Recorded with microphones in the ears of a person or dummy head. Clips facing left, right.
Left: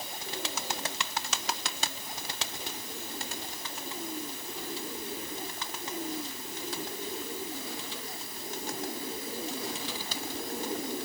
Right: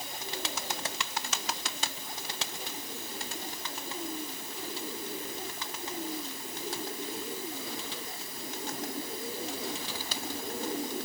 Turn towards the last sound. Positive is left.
No sound to turn to.